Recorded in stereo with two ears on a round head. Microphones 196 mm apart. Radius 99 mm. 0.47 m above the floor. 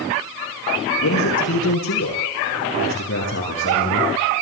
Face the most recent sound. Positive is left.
turn(degrees=50)  # may be behind; listen again after turning